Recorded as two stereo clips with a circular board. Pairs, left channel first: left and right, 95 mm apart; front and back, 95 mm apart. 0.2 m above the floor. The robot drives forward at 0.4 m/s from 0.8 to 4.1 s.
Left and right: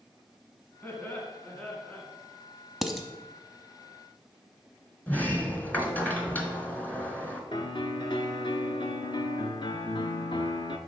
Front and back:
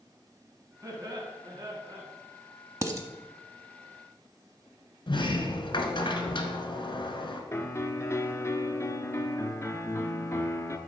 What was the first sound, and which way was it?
Laughter, 155° left.